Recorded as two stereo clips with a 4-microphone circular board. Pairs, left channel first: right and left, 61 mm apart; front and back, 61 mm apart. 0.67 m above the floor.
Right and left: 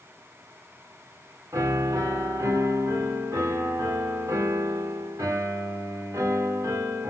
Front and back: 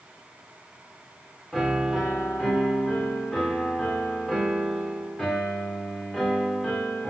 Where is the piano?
80° left, 2 m.